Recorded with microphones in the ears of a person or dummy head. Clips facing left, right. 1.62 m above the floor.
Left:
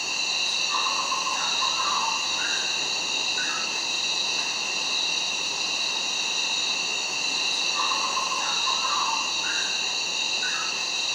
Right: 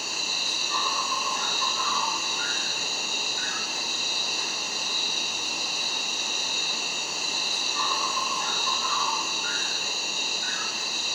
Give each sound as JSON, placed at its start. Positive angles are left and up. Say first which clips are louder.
{"t": 0.0, "sound": "an insect", "louder": "even", "side_deg": -25, "distance_m": 1.0}